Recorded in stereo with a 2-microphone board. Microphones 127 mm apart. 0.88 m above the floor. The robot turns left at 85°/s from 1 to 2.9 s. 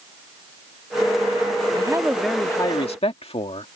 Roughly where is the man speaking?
Behind right.